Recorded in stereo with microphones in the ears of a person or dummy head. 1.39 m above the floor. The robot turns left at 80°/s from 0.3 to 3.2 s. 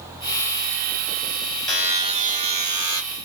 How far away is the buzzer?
About 1.4 m.